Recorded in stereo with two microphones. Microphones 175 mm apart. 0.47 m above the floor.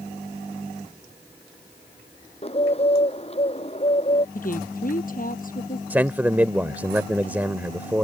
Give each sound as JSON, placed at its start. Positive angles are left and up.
{"t": 2.4, "sound": "a bird", "side_deg": 35}
{"t": 4.3, "sound": "a woman speaking", "side_deg": 55}
{"t": 5.9, "sound": "a man speaking", "side_deg": -10}